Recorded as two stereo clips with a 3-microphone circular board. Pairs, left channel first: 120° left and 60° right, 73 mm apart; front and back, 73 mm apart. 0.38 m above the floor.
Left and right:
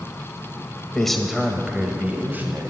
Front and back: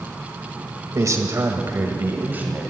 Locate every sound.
0.9 s a man speaking: 160° right, 1.4 m; by 2.7 s 115° right, 1.7 m